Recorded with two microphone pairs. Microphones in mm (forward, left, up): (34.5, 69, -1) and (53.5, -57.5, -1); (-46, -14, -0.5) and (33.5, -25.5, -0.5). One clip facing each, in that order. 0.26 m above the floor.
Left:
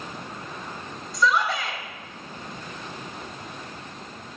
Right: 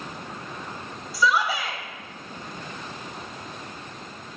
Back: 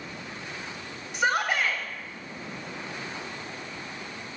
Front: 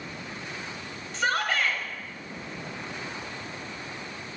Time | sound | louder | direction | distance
1.1 | a shout | even, back 1 dB | 160° right | 0.9 m